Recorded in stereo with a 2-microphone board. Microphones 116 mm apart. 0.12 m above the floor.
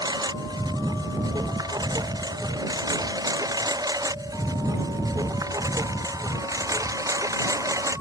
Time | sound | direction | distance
0.0 | a lawn mower | 35° right (ahead or behind) | ?